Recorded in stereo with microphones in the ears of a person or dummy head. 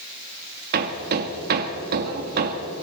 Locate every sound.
0.7 s hammering: 50° right (ahead or behind), 1.9 m